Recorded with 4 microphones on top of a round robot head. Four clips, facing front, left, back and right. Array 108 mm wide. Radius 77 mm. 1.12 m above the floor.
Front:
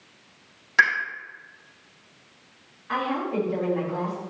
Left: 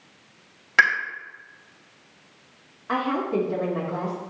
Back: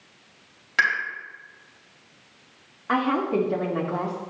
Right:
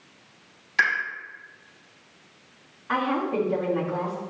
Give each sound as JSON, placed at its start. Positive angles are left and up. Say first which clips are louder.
{"t": 0.8, "sound": "a pop", "louder": "left 4 dB, front 2 dB", "azimuth_deg": 80, "distance_m": 5.0}
{"t": 2.9, "sound": "a woman speaking", "louder": "even, back 4 dB", "azimuth_deg": 160, "distance_m": 2.5}